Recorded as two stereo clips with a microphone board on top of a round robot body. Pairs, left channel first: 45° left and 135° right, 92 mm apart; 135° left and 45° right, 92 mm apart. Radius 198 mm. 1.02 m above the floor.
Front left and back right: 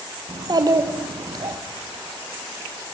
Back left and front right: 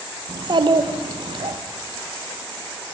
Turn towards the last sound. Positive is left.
turn(degrees=-85)